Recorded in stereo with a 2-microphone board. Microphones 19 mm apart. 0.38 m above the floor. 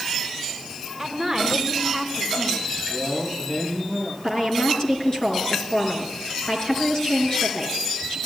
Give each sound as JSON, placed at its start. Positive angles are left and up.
{"t": 1.0, "sound": "a woman speaking", "side_deg": 10, "distance_m": 4.0}
{"t": 2.9, "sound": "a man speaking", "side_deg": 65, "distance_m": 8.0}
{"t": 4.2, "sound": "a woman speaking", "side_deg": 45, "distance_m": 5.5}